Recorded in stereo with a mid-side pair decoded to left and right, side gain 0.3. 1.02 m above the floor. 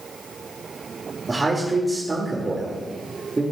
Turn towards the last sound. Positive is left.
turn(degrees=-25)